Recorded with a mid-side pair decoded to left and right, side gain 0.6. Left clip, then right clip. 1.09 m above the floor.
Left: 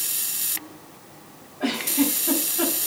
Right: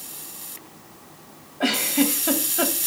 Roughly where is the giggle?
Ahead right.